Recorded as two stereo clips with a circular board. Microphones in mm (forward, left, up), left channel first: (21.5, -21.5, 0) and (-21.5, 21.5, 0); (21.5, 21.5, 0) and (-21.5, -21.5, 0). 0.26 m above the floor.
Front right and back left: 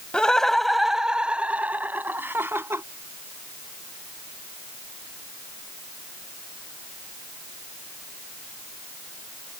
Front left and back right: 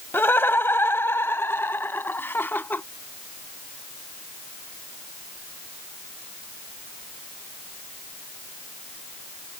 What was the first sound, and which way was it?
Laughter, 20° left.